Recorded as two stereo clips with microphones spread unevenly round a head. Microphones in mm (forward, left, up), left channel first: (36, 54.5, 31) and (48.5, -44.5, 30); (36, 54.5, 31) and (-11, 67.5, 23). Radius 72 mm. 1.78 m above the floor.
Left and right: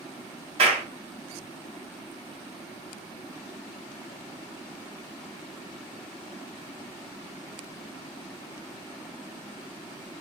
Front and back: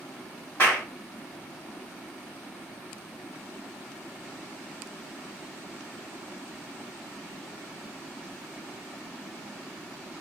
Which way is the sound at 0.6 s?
80° right.